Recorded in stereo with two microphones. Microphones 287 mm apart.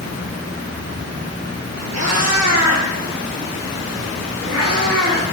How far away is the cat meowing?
About 1.3 m.